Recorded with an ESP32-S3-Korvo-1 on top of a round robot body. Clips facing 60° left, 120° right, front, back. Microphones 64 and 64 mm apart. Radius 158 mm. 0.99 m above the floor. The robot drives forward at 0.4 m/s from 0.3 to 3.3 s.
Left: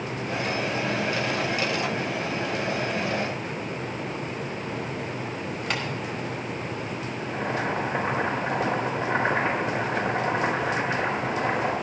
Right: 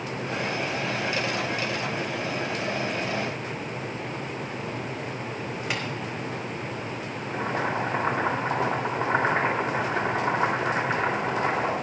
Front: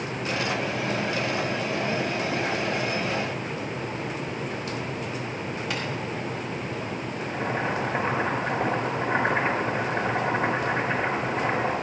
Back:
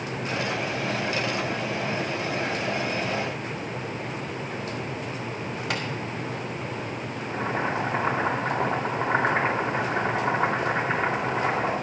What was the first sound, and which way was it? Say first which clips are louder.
Tapping: left 2 dB, back 2 dB; 155° left.